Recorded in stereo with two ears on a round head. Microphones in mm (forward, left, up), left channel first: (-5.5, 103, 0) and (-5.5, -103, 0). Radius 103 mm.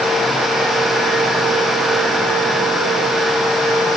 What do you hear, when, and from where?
Only background noise.